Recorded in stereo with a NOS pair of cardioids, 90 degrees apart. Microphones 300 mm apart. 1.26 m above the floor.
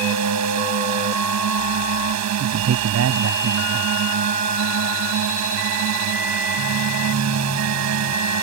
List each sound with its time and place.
0.0 s a drone: 65° right
2.4 s a man speaking: 60° right